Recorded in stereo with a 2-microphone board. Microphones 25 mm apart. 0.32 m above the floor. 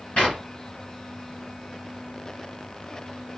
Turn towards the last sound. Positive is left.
turn(degrees=50)  # may be behind; listen again after turning